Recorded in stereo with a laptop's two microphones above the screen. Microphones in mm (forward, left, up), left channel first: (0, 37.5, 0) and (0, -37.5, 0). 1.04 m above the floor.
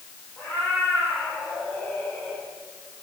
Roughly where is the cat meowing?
Centre.